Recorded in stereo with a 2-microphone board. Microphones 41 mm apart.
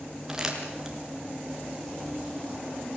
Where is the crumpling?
10° right (ahead or behind), 3.5 m.